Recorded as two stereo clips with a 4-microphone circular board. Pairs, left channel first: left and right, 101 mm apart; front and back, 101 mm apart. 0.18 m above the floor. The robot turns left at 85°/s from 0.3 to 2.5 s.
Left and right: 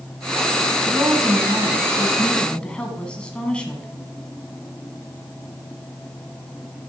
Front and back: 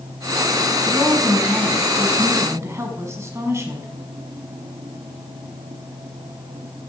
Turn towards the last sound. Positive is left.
turn(degrees=160)